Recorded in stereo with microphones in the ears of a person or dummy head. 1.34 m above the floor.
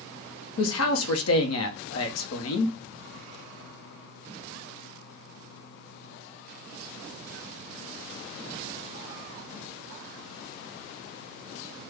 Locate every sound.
0.6 s a man speaking: 75° left (ahead or behind), 0.8 m